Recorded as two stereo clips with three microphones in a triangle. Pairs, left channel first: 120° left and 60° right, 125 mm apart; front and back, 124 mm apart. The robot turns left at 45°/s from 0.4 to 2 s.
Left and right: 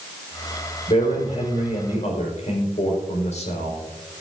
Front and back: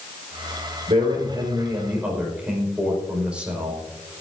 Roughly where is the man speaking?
Behind left.